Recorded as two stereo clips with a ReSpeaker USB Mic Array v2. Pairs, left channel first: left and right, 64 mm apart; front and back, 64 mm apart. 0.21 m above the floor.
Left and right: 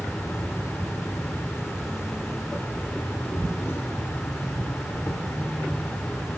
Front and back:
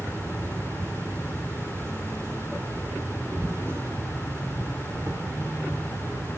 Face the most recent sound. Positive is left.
turn(degrees=135)